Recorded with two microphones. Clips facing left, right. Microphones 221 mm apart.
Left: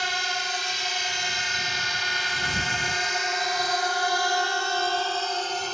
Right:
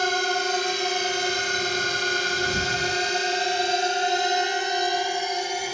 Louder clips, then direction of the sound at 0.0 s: Right 9 dB; 50° right (ahead or behind).